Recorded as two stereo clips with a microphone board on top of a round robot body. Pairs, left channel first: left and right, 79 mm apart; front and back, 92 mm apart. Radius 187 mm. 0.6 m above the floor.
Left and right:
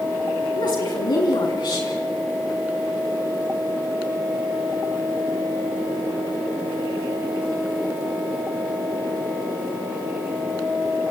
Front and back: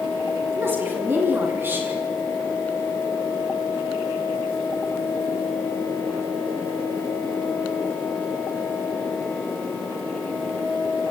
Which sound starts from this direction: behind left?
A woman speaking, at 0.5 s.